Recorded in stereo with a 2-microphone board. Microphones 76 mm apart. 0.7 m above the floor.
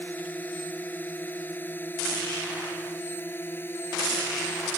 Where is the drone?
20° left (ahead or behind); by 4.8 s 30° left (ahead or behind).